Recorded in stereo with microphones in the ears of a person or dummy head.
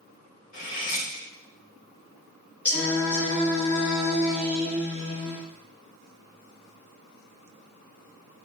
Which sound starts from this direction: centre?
Singing, at 2.6 s.